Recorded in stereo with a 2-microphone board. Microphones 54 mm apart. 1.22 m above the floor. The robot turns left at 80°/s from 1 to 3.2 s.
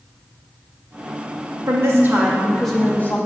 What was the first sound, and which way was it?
A woman speaking, 105° right.